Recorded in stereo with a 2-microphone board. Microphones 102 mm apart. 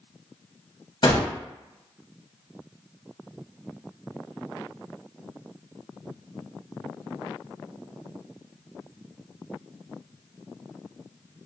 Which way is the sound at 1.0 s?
50° left (ahead or behind).